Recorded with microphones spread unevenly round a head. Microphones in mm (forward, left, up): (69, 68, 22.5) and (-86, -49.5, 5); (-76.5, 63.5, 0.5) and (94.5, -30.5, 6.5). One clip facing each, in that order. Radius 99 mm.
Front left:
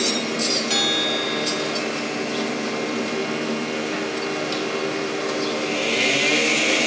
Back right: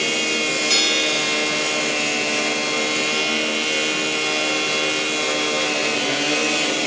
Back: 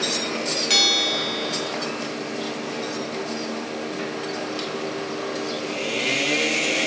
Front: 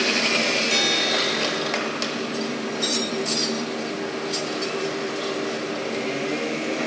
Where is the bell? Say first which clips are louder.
Even, front 2 dB; 165° left, 1.5 m.